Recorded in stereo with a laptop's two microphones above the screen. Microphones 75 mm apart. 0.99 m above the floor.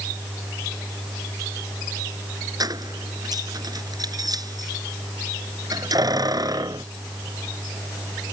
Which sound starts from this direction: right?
Keys jangling, at 2.6 s.